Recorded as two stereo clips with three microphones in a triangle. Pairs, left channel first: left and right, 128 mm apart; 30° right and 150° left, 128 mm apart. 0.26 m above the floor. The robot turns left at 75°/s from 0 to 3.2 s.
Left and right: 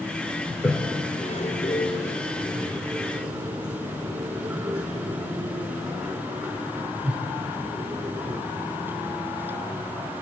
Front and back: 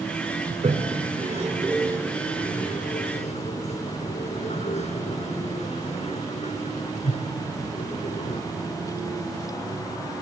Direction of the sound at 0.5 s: 165° right.